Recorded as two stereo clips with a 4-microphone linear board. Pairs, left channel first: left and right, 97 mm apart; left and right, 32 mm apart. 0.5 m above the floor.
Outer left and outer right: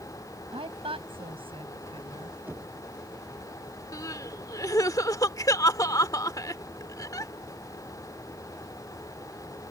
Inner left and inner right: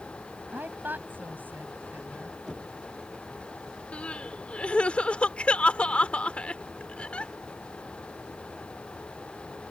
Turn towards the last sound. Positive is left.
turn(degrees=35)  # may be behind; listen again after turning